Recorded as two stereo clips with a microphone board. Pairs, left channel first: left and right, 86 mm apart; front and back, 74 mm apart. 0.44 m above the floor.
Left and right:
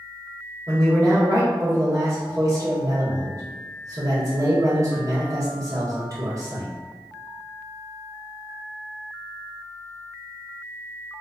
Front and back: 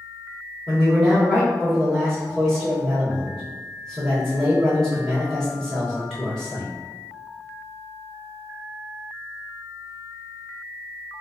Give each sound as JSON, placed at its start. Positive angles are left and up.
{"t": 0.7, "sound": "a man speaking", "azimuth_deg": -80, "distance_m": 1.7}